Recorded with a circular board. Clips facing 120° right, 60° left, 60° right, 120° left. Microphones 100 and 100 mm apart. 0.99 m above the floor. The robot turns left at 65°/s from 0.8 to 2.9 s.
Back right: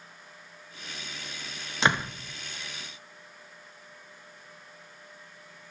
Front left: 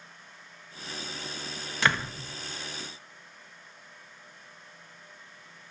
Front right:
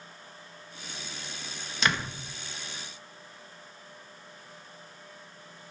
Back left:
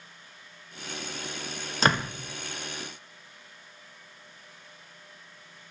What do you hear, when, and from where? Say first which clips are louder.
1.8 s a door slam: back right 2 dB, back left 4 dB; 170° left, 0.6 m; by 2.1 s 150° left, 0.6 m